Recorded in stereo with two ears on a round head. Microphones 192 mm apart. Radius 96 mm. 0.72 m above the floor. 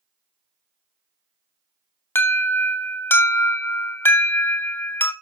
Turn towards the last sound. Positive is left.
turn(degrees=10)  # may be behind; listen again after turning